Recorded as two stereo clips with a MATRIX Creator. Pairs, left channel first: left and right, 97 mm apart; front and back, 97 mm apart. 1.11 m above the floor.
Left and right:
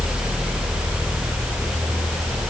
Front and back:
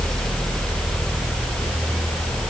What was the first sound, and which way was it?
Only background noise.